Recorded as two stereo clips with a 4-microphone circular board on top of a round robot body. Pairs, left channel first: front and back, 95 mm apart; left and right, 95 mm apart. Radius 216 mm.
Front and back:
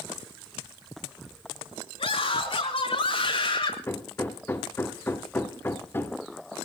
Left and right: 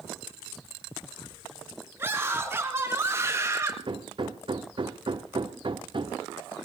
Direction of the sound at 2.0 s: 20° right.